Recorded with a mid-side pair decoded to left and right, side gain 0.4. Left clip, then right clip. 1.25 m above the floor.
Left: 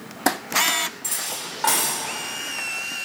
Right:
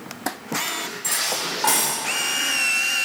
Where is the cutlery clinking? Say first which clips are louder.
Right 6 dB; straight ahead, 2 m.